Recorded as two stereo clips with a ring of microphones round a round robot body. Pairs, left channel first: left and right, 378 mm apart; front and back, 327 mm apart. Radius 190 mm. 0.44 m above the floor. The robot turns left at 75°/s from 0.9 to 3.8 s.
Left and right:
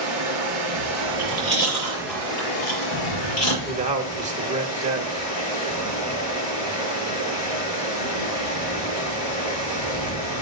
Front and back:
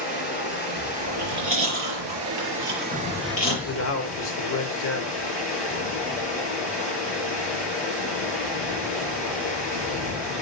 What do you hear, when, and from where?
0.0 s running water: 90° right, 5 m; by 10.4 s 50° left, 5 m
1.1 s chewing: 120° right, 6 m; by 3.5 s 55° left, 6 m
3.6 s a man speaking: 15° right, 1.1 m; by 5.1 s 25° right, 1.1 m